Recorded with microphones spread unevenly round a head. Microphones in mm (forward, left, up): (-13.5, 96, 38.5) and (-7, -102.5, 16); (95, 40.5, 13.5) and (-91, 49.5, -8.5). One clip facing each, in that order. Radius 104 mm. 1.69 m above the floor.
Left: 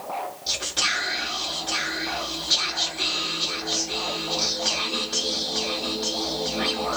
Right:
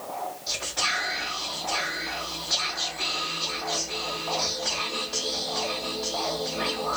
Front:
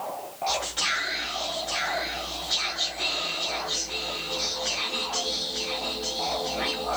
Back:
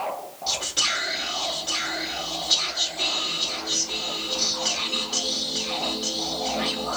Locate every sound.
0.5 s whispering: 140° left, 1.0 m